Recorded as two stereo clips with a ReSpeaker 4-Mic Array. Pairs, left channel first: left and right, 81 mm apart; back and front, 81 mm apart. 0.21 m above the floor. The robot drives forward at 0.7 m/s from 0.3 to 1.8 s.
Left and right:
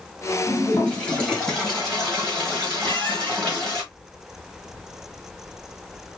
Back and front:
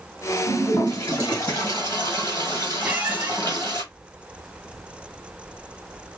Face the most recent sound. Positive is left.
turn(degrees=-70)